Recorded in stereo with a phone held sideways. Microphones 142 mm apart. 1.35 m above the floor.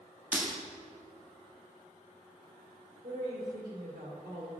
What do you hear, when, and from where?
0.3 s breaking glass: 5° right (ahead or behind), 1.4 m
3.0 s a woman speaking: 85° right, 1.6 m